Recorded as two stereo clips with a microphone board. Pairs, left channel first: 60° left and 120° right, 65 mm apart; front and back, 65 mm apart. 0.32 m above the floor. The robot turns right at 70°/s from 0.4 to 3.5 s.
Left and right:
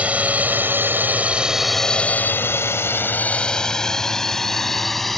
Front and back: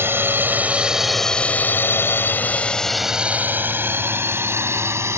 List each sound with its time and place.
0.0 s a drone: 175° right; by 5.2 s 145° left